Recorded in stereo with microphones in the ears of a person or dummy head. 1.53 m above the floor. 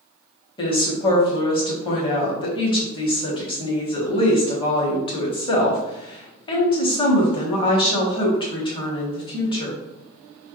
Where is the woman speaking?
25° left (ahead or behind), 1.4 m.